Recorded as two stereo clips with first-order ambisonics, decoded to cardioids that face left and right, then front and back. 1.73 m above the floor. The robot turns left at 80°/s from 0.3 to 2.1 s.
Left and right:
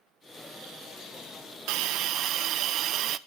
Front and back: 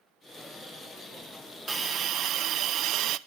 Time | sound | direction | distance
1.7 | a hiss | 100° right | 0.8 m